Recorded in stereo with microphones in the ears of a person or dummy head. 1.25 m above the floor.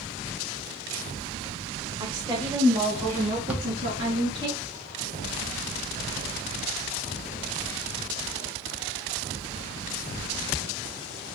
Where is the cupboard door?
10° right (ahead or behind), 0.8 m.